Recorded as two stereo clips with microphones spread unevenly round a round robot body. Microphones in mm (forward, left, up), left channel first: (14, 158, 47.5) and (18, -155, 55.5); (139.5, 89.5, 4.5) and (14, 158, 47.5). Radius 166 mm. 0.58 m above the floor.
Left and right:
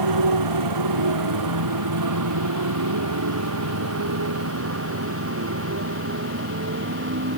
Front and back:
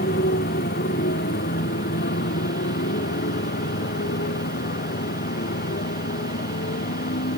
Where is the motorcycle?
70° right; by 7.4 s 35° right.